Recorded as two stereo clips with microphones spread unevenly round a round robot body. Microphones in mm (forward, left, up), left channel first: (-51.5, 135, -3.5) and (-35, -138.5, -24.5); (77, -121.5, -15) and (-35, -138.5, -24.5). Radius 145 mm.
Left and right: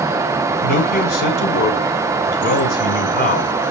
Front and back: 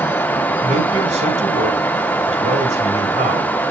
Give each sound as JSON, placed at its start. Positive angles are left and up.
{"t": 0.6, "sound": "a man speaking", "azimuth_deg": 145, "distance_m": 2.5}